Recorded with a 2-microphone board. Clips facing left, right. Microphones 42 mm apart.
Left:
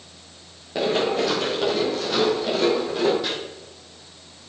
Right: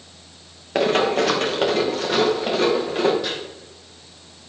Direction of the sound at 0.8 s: 60° right (ahead or behind).